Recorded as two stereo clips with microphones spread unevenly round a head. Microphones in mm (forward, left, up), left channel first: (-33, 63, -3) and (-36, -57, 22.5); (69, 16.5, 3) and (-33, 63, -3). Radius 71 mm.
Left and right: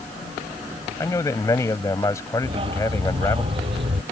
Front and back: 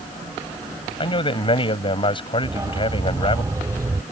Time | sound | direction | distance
1.0 | a man speaking | 15° left | ?
2.4 | a dog barking | 130° right | ?